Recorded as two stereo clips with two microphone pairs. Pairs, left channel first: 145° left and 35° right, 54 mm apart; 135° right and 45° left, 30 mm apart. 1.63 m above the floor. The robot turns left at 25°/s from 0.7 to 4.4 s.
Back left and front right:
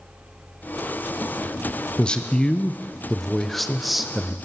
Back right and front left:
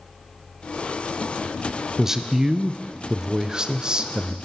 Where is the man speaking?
105° left, 0.5 m; by 4.3 s 45° left, 0.5 m.